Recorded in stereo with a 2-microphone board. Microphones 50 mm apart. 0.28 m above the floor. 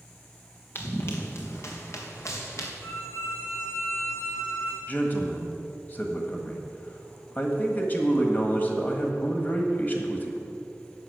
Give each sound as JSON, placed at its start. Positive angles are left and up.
{"t": 0.8, "sound": "running footsteps", "side_deg": 45, "distance_m": 2.0}
{"t": 2.8, "sound": "a violin", "side_deg": 80, "distance_m": 2.5}
{"t": 4.9, "sound": "a man speaking", "side_deg": 35, "distance_m": 1.5}